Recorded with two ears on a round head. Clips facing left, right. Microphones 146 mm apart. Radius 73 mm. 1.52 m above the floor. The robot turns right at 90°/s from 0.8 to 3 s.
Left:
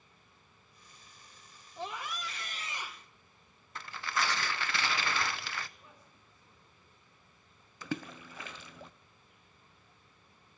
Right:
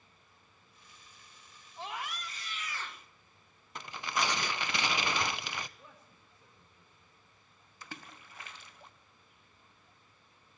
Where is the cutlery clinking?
I don't hear cutlery clinking.